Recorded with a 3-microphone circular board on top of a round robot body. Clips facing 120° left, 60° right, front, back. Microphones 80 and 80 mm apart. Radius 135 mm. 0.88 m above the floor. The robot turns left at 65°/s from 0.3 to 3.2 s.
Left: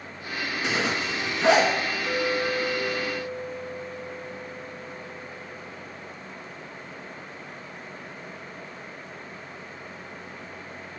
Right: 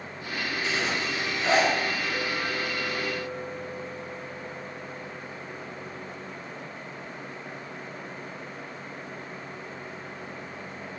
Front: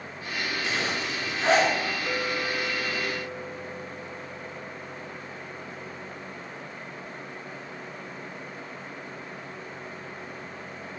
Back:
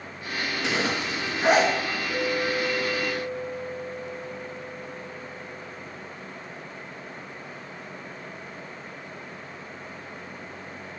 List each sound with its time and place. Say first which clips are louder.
0.6 s a zipper: left 3 dB, back 5 dB; 155° left, 2.5 m; by 1.7 s 85° left, 2.5 m
2.1 s a clink: left 4 dB, back 6 dB; 60° left, 3.5 m; by 5.8 s 15° right, 3.5 m